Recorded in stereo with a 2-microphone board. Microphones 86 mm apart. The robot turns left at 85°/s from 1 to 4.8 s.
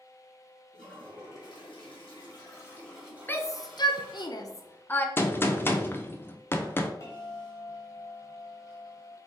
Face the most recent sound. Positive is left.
turn(degrees=35)  # may be behind; listen again after turning